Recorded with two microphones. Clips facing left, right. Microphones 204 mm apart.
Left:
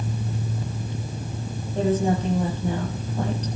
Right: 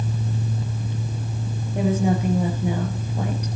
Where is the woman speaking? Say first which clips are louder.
Even; 10° right (ahead or behind), 4 m.